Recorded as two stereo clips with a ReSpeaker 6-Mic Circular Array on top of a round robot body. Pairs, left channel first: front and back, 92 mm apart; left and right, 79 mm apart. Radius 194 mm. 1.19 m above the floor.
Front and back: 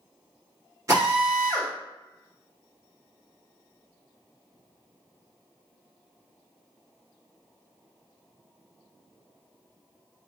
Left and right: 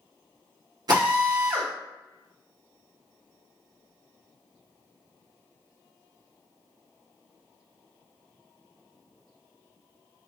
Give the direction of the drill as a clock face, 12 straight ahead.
4 o'clock.